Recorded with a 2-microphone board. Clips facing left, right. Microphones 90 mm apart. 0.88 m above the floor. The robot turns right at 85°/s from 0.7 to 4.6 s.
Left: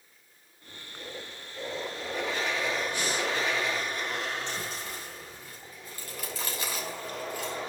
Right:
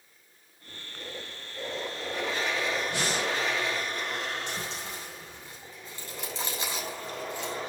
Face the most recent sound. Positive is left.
turn(degrees=-25)  # may be behind; listen again after turning